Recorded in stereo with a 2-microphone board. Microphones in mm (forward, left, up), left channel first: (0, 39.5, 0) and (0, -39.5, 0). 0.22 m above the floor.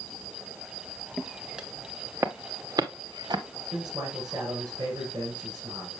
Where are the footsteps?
Centre (ahead or behind), 1.5 m; by 3.4 s 65° right (ahead or behind), 1.8 m.